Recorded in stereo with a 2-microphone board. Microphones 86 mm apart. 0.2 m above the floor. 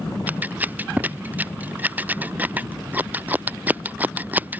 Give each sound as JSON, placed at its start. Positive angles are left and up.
{"t": 0.3, "sound": "scissors", "side_deg": -20}